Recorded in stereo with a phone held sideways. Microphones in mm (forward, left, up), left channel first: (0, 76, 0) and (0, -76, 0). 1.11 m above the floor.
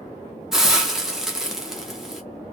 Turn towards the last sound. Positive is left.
turn(degrees=-5)  # may be behind; listen again after turning